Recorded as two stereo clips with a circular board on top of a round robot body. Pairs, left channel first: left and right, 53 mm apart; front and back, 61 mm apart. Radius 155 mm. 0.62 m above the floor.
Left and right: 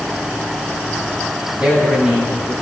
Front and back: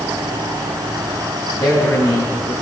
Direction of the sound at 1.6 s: 15° right.